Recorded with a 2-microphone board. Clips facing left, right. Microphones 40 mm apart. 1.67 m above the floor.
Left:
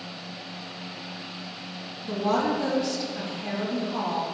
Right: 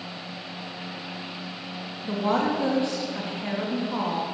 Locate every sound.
2.0 s a woman speaking: 30° right (ahead or behind), 3.5 m